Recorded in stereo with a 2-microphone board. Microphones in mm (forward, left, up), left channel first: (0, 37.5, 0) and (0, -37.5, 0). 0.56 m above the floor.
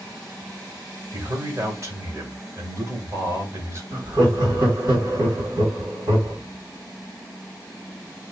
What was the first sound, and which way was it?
A man speaking, 45° right (ahead or behind).